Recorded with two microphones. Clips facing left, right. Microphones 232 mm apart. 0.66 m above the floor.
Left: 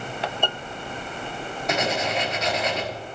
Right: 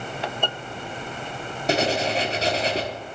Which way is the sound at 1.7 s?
35° right (ahead or behind).